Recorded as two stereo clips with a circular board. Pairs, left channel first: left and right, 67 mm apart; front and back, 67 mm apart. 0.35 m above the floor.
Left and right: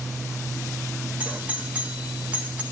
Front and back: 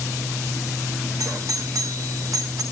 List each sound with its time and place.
1.2 s a doorbell: 160° right, 4.5 m